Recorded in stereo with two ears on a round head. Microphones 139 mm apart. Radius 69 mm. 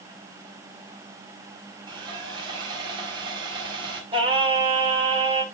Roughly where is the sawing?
Right.